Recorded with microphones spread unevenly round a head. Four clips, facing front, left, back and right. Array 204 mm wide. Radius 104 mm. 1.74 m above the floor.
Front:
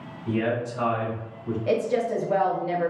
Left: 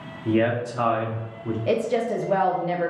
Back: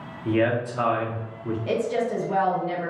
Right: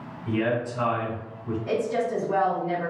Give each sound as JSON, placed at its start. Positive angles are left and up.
{"t": 0.2, "sound": "a man speaking", "azimuth_deg": 135, "distance_m": 1.1}
{"t": 1.7, "sound": "a woman speaking", "azimuth_deg": 85, "distance_m": 0.9}